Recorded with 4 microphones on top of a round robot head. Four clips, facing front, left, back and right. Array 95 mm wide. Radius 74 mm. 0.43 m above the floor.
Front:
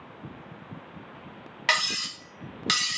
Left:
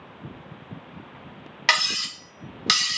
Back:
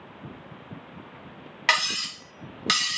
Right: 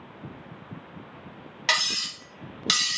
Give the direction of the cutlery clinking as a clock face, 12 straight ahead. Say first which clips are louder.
Left 4 dB, back 2 dB; 8 o'clock.